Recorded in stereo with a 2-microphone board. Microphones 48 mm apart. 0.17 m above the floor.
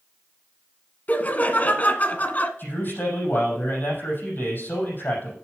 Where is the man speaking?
45° left (ahead or behind), 6 m.